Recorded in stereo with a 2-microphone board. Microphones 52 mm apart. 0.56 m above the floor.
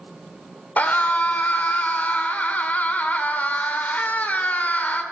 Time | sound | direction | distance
0.8 | a scream | 30° left (ahead or behind) | 1.9 m